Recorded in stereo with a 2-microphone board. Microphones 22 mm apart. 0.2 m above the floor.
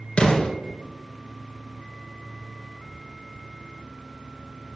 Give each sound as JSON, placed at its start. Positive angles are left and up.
{"t": 0.2, "sound": "an explosion", "side_deg": 70, "distance_m": 2.5}